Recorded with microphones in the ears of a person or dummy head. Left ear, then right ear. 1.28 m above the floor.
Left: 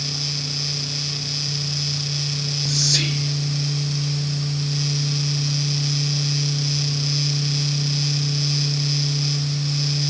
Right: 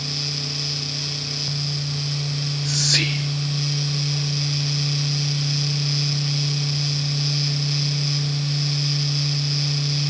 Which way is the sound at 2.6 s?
30° right (ahead or behind).